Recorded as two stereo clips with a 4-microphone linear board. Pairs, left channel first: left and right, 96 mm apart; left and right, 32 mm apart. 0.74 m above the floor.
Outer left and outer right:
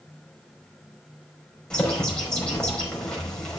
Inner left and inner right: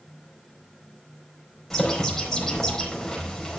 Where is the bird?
10° left (ahead or behind), 4.5 m.